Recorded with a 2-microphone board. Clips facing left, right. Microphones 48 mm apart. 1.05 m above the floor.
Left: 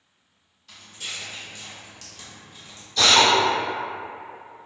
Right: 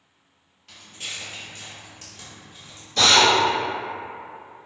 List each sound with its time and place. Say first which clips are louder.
0.7 s footsteps: even; 45° right (ahead or behind), 1.5 m; by 2.9 s centre (ahead or behind), 1.3 m
3.0 s a drill: right 1 dB; 45° right (ahead or behind), 1.3 m